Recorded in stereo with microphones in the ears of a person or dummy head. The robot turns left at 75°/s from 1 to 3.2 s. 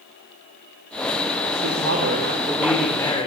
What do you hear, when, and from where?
1.6 s a woman speaking: 90° right, 3.5 m; by 3.3 s 150° left, 3.5 m